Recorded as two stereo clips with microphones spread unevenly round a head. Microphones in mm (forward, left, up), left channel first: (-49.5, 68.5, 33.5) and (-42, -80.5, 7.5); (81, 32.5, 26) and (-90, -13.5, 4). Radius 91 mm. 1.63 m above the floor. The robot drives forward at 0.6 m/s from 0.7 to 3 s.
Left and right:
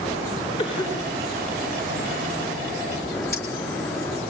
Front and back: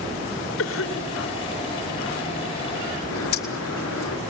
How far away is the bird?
About 4.5 m.